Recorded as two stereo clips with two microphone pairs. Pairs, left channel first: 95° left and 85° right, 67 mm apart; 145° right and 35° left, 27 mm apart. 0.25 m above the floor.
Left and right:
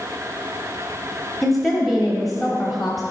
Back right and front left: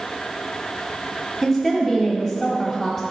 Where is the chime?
I don't hear a chime.